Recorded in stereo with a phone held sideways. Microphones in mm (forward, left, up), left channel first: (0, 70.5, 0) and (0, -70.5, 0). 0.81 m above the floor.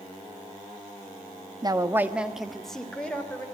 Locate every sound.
1.6 s a woman speaking: 30° right (ahead or behind), 1.1 m; by 3.5 s 10° left (ahead or behind), 3.5 m